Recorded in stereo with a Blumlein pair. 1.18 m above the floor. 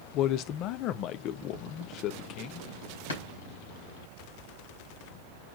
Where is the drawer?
70° left, 5.5 m.